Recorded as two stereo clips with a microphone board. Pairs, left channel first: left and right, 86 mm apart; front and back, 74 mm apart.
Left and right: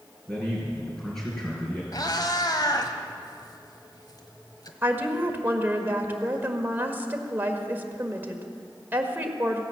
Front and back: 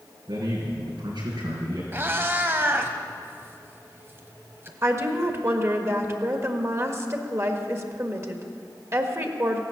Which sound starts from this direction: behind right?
A woman speaking, at 4.8 s.